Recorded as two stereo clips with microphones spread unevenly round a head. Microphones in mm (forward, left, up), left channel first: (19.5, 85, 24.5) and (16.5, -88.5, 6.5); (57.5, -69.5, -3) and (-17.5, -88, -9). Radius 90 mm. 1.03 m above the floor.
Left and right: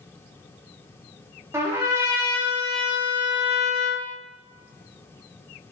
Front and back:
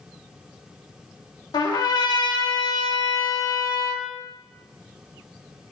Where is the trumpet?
15° right, 1.6 m.